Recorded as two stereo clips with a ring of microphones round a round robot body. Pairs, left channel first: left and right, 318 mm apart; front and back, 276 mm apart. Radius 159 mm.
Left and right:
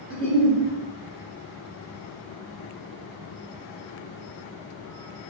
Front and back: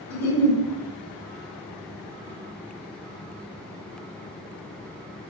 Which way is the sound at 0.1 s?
25° left.